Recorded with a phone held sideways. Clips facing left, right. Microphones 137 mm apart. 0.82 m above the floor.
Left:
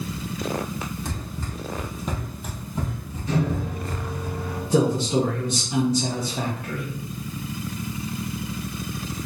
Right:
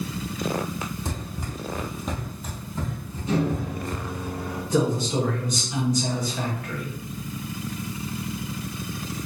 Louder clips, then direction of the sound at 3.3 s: Right 1 dB; 25° right (ahead or behind).